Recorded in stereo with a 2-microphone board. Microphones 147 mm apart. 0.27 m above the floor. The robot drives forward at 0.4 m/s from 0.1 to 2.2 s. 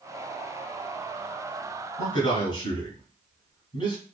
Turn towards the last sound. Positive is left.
turn(degrees=35)  # may be behind; listen again after turning